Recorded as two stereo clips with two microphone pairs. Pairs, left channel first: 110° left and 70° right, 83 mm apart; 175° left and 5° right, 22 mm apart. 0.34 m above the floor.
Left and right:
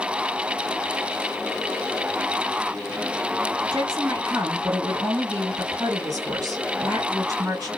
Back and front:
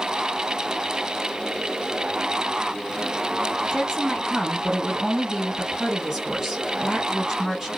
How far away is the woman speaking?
About 1.9 m.